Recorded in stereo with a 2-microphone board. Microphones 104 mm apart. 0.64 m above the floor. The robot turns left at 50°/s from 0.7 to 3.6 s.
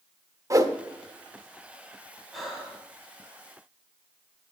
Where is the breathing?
Centre (ahead or behind), 2.5 m; by 2.8 s 20° right (ahead or behind), 2.5 m.